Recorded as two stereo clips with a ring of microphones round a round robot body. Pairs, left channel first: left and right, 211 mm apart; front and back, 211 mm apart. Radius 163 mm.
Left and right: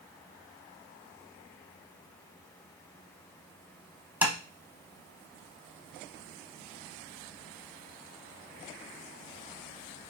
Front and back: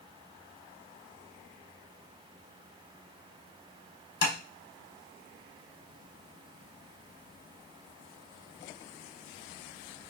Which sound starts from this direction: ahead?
Tapping, at 4.2 s.